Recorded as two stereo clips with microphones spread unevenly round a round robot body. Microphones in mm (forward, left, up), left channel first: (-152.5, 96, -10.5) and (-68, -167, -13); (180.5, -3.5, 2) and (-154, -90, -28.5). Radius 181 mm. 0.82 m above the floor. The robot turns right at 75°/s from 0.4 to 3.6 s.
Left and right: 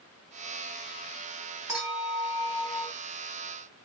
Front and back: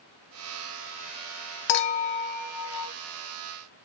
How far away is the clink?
About 0.5 m.